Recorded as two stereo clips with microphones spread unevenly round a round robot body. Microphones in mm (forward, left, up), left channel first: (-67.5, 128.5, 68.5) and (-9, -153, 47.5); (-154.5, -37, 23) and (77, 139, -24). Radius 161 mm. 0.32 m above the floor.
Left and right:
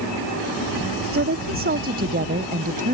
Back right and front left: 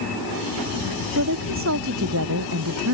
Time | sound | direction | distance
1.1 | a woman speaking | 20° right | ?